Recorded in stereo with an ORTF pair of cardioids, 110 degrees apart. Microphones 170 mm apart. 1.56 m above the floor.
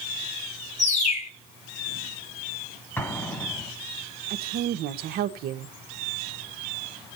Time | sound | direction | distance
0.8 | a bird | 45° left | 4.5 m
3.0 | an explosion | 15° left | 2.5 m
4.3 | a woman speaking | 65° right | 1.4 m